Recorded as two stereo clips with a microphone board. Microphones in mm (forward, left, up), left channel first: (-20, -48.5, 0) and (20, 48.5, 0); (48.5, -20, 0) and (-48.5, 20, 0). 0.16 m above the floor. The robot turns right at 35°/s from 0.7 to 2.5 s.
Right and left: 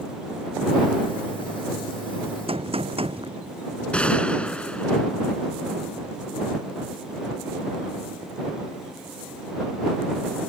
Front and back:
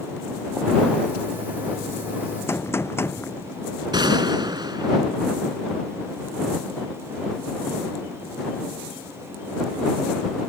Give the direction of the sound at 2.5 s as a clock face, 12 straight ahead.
11 o'clock.